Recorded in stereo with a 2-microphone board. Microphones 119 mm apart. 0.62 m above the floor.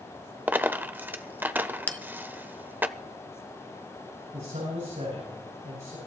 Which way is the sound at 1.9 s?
15° left (ahead or behind).